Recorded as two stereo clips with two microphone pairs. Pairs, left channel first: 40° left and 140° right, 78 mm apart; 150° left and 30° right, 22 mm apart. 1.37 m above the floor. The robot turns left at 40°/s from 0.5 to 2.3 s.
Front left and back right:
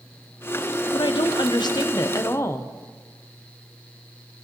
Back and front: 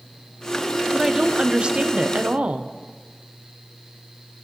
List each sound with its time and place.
0.9 s a woman speaking: 40° left, 0.7 m; by 2.7 s 15° right, 0.7 m